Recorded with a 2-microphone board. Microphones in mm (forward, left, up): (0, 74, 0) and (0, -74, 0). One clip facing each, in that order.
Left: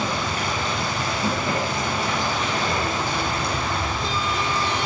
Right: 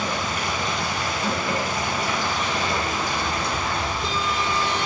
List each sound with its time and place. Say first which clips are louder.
0.0 s running water: left 1 dB; 30° left (ahead or behind), 5.5 m